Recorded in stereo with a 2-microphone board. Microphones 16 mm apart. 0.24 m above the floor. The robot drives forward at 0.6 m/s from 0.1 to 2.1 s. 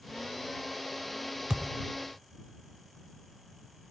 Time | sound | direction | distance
1.5 | a thud | 45° right (ahead or behind) | 1.1 m